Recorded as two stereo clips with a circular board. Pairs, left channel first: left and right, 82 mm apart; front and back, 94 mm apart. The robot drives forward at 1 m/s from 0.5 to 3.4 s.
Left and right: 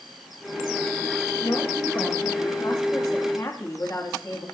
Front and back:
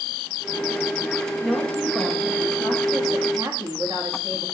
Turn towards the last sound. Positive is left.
turn(degrees=135)